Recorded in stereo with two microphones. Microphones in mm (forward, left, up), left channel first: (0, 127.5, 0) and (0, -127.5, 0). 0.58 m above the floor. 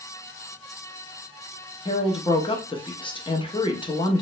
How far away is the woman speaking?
About 0.6 m.